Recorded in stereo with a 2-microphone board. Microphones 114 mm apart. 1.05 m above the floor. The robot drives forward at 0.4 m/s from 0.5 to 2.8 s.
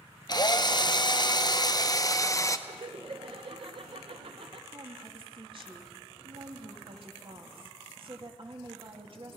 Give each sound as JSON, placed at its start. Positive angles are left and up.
{"t": 0.3, "sound": "a drill", "side_deg": 40, "distance_m": 0.7}
{"t": 2.7, "sound": "laughter", "side_deg": -55, "distance_m": 1.0}
{"t": 4.7, "sound": "a woman speaking", "side_deg": -50, "distance_m": 1.9}